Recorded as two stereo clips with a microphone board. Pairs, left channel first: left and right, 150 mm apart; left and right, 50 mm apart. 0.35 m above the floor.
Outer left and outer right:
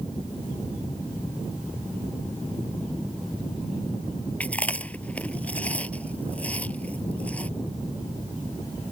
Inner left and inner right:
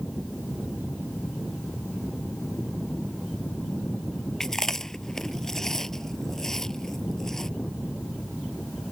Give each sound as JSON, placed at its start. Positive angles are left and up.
{"t": 4.4, "sound": "chewing", "side_deg": 10}